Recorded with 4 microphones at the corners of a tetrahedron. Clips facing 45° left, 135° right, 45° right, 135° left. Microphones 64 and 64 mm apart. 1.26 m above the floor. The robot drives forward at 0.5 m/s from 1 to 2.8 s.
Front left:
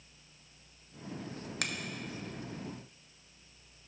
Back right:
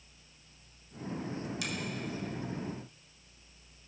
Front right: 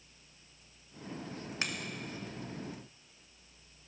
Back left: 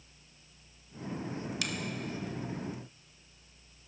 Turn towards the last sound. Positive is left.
turn(degrees=35)